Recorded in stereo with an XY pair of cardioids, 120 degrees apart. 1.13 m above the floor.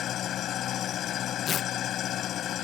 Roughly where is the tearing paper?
Ahead left.